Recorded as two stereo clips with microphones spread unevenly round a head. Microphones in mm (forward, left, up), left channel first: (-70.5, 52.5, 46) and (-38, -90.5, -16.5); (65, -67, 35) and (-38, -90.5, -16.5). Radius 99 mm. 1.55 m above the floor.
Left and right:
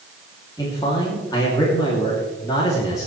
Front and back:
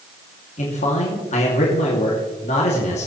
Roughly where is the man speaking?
Ahead left.